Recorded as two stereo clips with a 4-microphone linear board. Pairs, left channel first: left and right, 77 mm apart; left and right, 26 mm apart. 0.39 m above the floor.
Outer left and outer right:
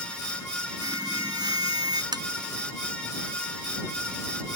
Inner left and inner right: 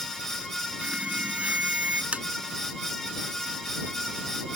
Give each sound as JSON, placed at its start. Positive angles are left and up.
{"t": 0.8, "sound": "an alarm", "side_deg": -60}
{"t": 2.1, "sound": "tapping", "side_deg": -65}